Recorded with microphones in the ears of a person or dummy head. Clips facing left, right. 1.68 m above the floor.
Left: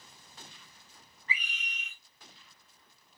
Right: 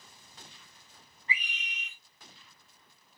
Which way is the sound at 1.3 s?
10° right (ahead or behind).